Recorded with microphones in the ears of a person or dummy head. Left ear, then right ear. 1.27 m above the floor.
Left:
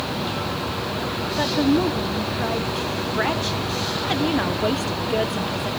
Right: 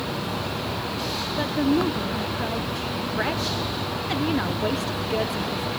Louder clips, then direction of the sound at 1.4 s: Left 3 dB; 5° left (ahead or behind).